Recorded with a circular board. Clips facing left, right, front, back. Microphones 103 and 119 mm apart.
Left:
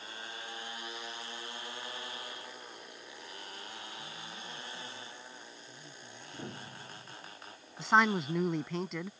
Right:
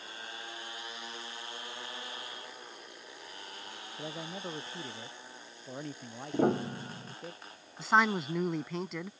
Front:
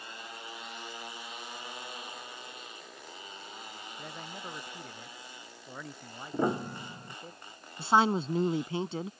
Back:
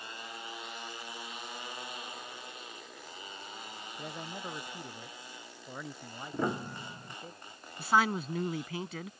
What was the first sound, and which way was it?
A man speaking, 100° right.